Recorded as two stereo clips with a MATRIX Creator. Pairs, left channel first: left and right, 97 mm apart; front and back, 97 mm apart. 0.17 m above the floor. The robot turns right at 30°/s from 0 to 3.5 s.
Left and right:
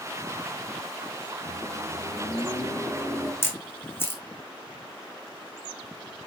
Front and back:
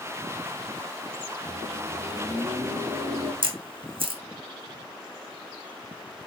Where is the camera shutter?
155° left, 2.5 m.